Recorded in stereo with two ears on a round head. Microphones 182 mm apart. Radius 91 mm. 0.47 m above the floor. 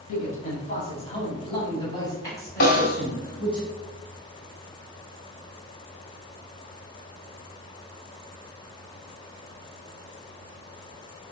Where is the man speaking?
40° left (ahead or behind), 3.5 m; by 3.6 s 5° left (ahead or behind), 4.5 m.